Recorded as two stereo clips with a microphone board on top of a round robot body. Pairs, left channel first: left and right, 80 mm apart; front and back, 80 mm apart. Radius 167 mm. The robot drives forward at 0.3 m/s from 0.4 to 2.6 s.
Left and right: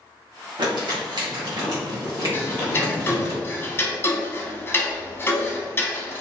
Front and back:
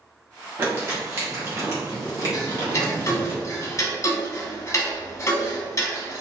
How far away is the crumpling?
About 1.2 m.